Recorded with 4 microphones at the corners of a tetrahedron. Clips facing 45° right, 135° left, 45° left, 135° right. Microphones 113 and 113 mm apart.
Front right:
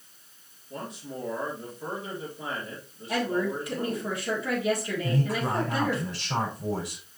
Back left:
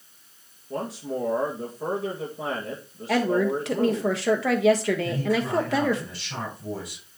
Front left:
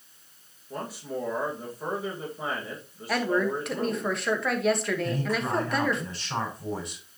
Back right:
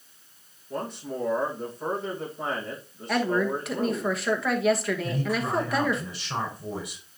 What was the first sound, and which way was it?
A man speaking, 130° left.